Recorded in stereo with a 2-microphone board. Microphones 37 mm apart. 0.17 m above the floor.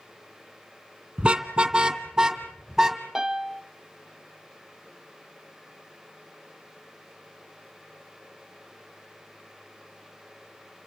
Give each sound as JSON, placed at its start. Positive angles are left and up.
{"t": 1.2, "sound": "a car horn", "side_deg": -25, "distance_m": 2.0}
{"t": 3.1, "sound": "a piano", "side_deg": -15, "distance_m": 0.9}